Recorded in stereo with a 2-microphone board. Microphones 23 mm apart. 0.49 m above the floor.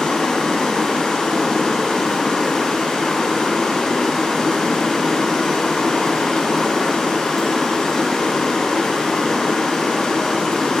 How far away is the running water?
About 1.6 m.